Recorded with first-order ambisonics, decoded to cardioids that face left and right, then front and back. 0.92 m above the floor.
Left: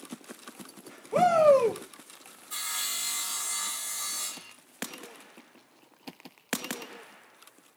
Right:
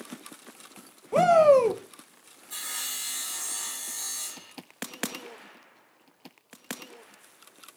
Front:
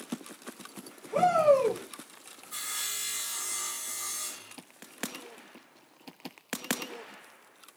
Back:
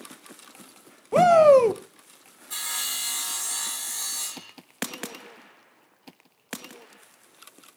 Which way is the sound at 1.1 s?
160° right.